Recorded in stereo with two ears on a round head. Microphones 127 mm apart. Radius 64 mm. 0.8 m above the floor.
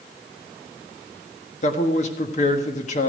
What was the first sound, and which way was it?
A man speaking, 50° left (ahead or behind).